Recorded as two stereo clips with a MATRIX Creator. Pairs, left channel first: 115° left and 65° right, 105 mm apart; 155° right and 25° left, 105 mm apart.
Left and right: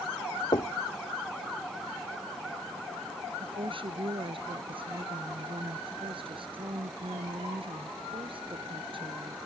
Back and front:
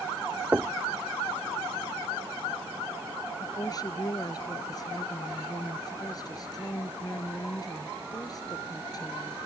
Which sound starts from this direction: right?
A woman speaking, at 3.4 s.